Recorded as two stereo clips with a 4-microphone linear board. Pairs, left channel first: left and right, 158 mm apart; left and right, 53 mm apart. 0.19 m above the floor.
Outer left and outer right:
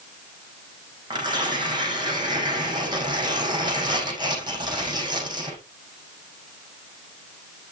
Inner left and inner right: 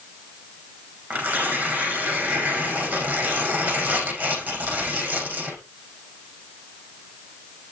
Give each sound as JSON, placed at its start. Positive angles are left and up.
{"t": 1.1, "sound": "tearing paper", "side_deg": -25, "distance_m": 6.0}